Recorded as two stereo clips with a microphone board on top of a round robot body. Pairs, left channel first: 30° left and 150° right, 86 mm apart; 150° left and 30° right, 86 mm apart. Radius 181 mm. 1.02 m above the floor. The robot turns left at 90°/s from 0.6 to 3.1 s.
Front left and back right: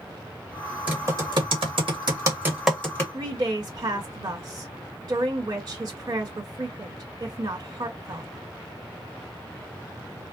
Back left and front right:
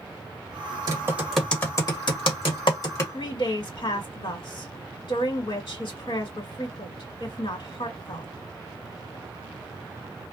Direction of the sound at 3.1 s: 175° left.